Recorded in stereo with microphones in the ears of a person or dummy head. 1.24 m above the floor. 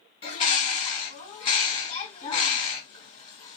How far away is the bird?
About 1.8 m.